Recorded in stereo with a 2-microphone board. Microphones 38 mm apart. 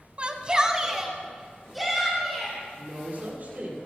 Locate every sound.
0.2 s a shout: 30° right (ahead or behind), 1.1 m; by 2.6 s 5° left (ahead or behind), 3 m
2.8 s a woman speaking: 45° right (ahead or behind), 5.5 m